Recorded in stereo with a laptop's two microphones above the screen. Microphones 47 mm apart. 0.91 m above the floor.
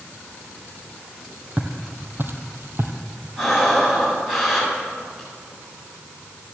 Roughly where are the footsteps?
Right.